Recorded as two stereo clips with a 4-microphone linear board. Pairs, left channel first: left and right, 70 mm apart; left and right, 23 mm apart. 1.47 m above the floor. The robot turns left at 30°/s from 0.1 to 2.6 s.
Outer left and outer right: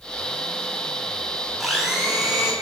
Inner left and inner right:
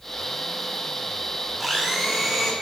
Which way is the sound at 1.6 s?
Centre (ahead or behind).